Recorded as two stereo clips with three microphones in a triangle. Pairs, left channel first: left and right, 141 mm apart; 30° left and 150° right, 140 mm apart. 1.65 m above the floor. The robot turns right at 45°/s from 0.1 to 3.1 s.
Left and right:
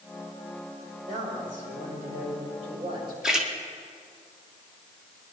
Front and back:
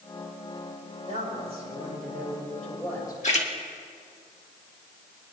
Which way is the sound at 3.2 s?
5° right.